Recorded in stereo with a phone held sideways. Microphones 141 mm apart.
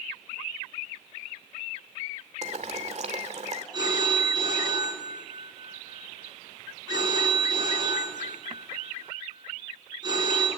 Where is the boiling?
55° right (ahead or behind), 2 m.